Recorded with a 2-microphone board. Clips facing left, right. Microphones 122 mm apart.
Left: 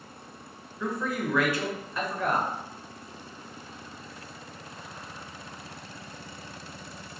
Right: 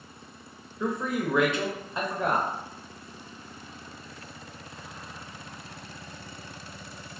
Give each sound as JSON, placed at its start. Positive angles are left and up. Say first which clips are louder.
{"t": 0.8, "sound": "a man speaking", "louder": "right 2 dB", "side_deg": -20, "distance_m": 0.8}